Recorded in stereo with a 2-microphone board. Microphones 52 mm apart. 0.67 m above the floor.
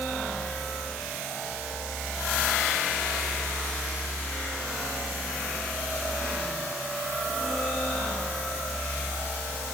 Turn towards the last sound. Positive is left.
No sound to turn to.